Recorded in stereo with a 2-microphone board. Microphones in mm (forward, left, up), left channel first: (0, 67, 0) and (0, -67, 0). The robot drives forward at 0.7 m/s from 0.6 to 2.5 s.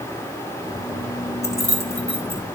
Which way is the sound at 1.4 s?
50° left (ahead or behind).